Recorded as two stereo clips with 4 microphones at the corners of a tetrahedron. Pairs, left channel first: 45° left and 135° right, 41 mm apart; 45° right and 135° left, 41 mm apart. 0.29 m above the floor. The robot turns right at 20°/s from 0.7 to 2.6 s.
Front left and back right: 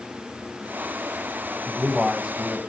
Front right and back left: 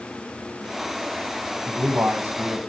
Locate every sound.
1.7 s a man speaking: 145° left, 2 m; by 2.6 s 165° left, 2 m